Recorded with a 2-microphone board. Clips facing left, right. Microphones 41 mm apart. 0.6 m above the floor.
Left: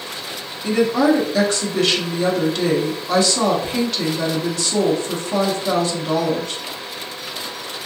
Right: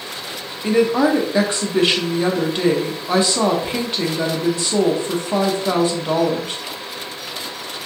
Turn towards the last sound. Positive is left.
turn(degrees=-25)  # may be behind; listen again after turning